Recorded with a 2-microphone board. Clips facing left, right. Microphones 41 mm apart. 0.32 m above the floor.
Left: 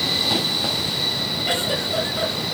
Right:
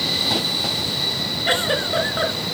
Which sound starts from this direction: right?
A giggle, at 1.5 s.